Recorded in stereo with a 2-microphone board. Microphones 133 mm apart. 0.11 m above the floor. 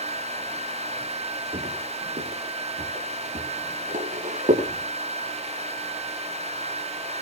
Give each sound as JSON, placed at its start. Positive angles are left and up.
{"t": 1.5, "sound": "footsteps", "side_deg": -80, "distance_m": 9.5}